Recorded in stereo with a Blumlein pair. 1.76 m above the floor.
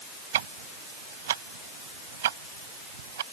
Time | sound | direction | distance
0.3 | ticking | 60° right | ?